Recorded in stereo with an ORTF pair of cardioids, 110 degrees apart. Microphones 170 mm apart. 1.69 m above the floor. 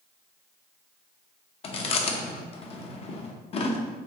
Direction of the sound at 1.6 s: 35° left.